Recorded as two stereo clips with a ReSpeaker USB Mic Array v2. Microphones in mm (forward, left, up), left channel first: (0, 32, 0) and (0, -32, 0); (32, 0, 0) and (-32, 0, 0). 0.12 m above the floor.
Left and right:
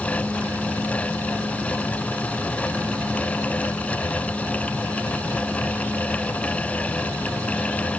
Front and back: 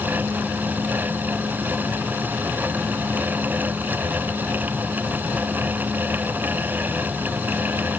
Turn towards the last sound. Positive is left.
No sound to turn to.